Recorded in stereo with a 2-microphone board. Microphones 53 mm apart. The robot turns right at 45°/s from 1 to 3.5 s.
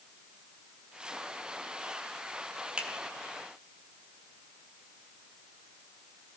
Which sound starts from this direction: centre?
A finger snap, at 2.8 s.